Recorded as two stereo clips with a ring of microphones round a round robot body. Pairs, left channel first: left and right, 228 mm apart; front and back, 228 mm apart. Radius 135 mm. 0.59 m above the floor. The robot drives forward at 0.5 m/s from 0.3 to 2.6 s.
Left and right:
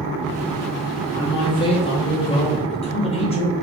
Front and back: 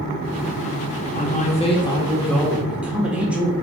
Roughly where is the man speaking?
Ahead left.